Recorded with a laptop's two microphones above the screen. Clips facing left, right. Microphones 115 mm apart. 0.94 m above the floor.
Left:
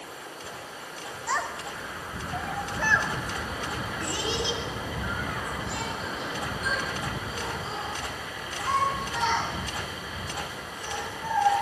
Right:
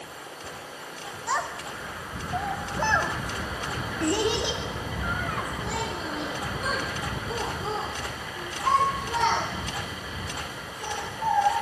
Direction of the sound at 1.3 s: 5° right (ahead or behind).